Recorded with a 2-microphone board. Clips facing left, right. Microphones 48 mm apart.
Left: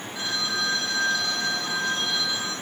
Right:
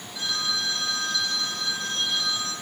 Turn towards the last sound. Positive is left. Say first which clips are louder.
# left 1 dB
turn(degrees=35)  # may be behind; listen again after turning